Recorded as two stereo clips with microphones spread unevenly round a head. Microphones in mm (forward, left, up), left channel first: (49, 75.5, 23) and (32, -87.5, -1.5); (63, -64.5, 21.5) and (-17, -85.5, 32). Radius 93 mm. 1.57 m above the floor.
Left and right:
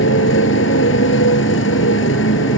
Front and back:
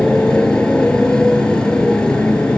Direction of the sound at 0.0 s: 100° left.